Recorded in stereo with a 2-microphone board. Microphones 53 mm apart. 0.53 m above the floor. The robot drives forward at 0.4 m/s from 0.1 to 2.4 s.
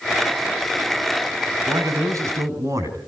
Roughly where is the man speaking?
Right.